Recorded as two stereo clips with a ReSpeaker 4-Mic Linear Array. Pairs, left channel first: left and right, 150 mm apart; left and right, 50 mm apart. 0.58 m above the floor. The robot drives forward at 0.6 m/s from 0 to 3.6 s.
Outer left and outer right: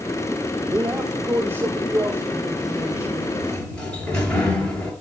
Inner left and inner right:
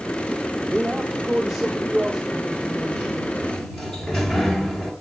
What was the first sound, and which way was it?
A man speaking, 20° right (ahead or behind).